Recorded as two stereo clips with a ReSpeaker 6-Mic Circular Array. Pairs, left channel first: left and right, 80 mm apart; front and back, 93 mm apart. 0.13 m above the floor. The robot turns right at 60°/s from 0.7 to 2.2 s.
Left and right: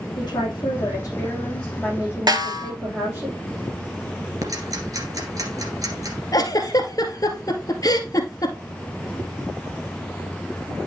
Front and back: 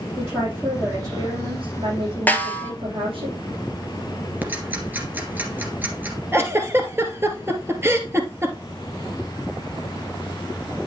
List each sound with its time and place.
0.2 s a woman speaking: 115° left, 6 m; by 3.3 s 155° right, 6 m
2.3 s a snare drum: 70° right, 1.1 m
4.4 s ticking: 115° right, 2 m
6.3 s a giggle: 120° left, 1.7 m